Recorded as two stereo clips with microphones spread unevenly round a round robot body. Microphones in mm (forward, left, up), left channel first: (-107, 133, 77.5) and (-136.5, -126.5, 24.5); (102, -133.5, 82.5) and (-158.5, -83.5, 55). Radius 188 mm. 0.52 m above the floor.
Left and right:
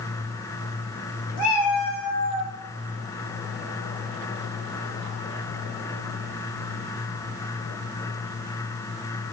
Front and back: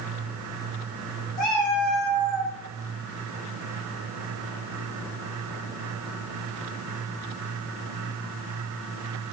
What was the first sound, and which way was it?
A cat meowing, 65° left.